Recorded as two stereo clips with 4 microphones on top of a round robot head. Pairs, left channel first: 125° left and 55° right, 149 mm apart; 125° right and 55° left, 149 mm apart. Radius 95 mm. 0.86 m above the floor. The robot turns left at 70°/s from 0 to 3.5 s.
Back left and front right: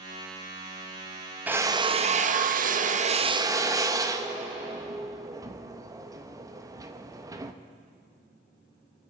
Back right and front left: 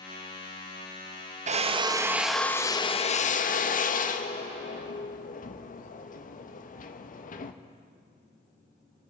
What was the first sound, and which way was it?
A drill, 25° left.